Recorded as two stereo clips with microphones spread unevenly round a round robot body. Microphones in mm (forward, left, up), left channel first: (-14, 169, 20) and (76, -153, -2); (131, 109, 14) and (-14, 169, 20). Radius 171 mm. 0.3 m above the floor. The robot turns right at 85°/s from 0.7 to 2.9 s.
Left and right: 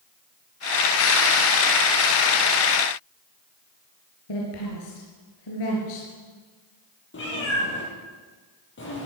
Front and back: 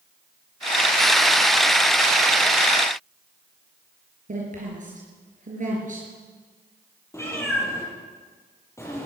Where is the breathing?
No breathing in this recording.